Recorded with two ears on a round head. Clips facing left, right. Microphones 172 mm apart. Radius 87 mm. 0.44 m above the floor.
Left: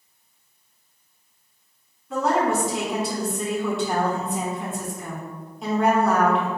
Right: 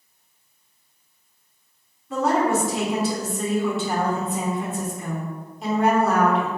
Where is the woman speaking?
Centre (ahead or behind), 0.8 m.